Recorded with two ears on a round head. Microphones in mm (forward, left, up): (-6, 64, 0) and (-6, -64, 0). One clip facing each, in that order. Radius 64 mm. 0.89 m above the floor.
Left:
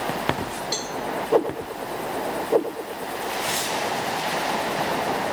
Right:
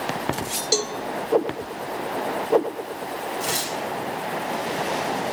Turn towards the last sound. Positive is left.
turn(degrees=-55)  # may be behind; listen again after turning